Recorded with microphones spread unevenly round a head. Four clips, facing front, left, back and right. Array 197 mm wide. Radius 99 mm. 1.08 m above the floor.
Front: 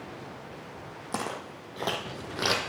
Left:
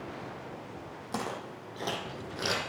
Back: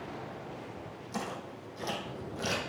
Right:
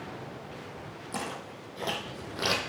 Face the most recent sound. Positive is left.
turn(degrees=-25)